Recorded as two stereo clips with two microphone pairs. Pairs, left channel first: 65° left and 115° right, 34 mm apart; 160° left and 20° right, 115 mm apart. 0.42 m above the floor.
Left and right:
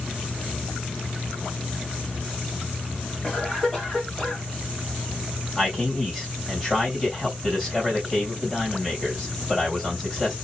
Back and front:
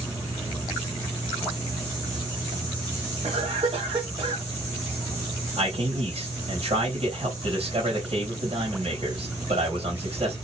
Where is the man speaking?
15° right, 2.5 m.